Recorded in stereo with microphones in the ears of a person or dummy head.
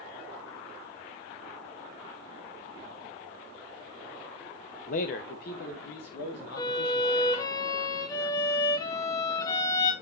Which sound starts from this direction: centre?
A violin, at 6.6 s.